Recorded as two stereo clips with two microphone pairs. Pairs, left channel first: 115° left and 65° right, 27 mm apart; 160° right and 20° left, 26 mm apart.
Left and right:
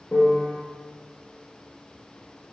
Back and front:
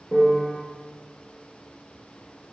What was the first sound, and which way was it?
A piano, 115° left.